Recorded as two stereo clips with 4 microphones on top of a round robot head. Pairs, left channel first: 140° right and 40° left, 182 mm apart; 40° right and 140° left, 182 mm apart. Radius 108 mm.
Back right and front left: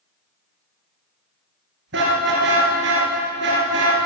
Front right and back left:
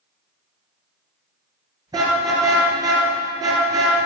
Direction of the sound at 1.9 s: 70° left.